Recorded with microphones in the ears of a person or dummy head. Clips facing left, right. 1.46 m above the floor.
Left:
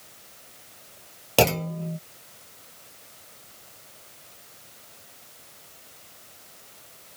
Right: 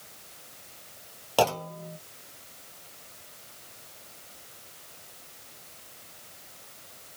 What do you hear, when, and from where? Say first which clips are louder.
1.4 s a clunk: left 3 dB; 30° left (ahead or behind)